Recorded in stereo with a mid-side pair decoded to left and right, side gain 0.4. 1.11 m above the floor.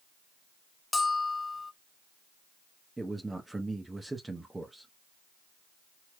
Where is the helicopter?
I don't hear a helicopter.